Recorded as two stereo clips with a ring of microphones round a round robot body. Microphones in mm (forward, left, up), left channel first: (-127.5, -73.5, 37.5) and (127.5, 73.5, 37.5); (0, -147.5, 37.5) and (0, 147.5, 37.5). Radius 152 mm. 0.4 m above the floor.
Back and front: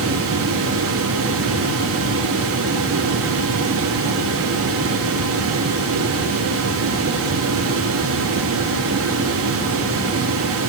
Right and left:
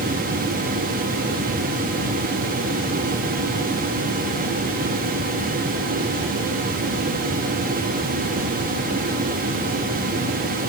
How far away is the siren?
I don't hear a siren.